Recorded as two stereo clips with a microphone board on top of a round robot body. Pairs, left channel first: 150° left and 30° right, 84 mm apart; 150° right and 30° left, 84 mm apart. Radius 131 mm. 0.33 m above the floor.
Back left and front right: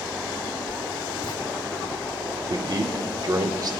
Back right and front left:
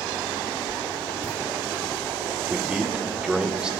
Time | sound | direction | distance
0.7 | writing | 140° left | 1.7 m
2.5 | a man speaking | 45° right | 1.2 m